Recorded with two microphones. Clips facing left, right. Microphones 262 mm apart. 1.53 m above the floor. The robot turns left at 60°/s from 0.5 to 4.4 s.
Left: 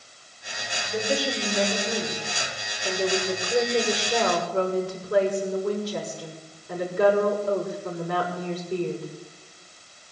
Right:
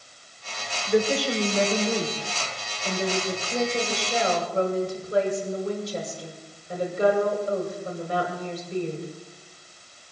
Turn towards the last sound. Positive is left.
turn(degrees=75)